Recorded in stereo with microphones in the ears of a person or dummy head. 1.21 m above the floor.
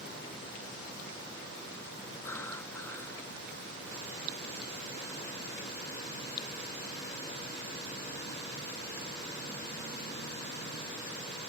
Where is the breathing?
15° left (ahead or behind).